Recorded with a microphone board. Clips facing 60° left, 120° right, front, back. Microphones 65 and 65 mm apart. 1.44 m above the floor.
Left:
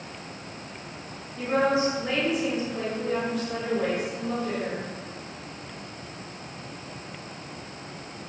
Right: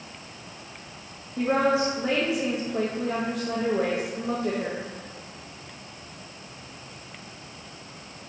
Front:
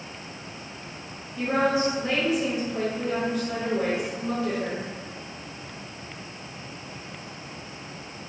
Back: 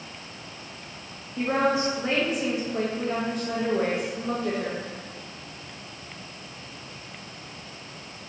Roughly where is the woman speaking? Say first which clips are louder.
Right 1 dB, even; behind right.